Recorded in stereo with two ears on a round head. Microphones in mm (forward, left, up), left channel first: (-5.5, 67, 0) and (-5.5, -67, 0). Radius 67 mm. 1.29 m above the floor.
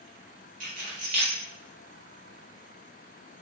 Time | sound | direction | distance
0.6 | keys jangling | 55° right (ahead or behind) | 0.9 m